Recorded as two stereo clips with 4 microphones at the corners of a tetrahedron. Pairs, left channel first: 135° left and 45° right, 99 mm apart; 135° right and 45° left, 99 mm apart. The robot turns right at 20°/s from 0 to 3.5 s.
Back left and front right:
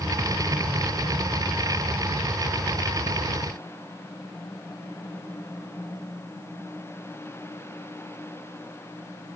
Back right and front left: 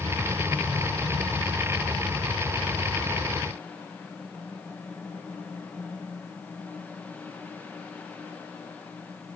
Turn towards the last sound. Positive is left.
No sound to turn to.